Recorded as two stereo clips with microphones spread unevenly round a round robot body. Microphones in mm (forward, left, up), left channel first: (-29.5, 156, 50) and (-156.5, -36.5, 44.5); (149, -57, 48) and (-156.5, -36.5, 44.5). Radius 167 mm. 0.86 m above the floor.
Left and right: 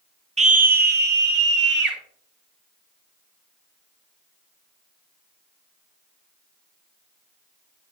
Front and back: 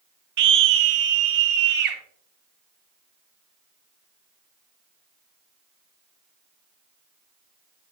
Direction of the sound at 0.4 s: 175° left.